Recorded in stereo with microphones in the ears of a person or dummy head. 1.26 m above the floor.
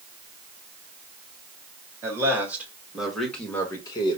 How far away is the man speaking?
About 2.0 m.